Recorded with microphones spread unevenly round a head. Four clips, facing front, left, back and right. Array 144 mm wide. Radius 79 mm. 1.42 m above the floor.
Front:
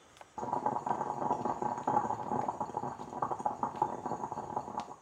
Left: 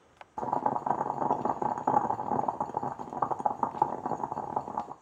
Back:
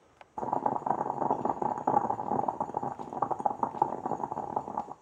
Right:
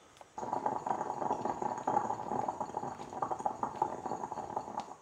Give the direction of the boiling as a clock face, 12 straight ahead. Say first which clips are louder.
Left 6 dB, back 4 dB; 7 o'clock.